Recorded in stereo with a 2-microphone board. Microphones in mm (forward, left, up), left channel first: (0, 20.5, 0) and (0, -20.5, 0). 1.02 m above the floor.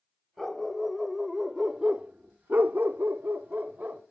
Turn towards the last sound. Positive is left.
turn(degrees=-35)  # may be behind; listen again after turning